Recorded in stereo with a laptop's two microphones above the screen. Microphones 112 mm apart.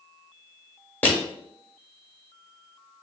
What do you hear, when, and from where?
1.0 s crushing: 15° left (ahead or behind), 0.9 m